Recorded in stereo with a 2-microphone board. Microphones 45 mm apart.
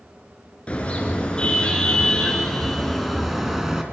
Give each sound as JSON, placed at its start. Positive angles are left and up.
{"t": 0.7, "sound": "a car horn", "side_deg": 30, "distance_m": 4.0}